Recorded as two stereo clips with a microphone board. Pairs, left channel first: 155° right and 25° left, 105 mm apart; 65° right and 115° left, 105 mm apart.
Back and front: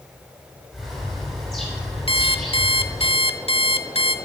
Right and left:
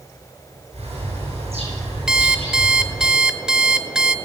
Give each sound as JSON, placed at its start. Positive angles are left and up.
{"t": 0.7, "sound": "a bird", "azimuth_deg": 115, "distance_m": 5.5}
{"t": 2.1, "sound": "an alarm clock", "azimuth_deg": -165, "distance_m": 0.5}